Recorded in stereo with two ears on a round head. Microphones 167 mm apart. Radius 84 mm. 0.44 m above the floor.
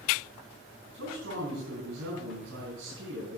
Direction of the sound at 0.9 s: 75° right (ahead or behind).